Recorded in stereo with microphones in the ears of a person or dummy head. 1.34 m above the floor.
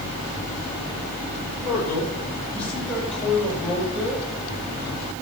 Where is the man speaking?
20° left (ahead or behind), 4 m; by 4.2 s 5° right (ahead or behind), 6 m.